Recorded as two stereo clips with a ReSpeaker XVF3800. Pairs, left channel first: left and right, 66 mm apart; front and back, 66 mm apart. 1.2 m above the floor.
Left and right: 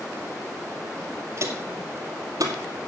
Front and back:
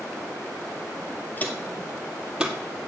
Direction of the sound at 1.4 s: 55° right.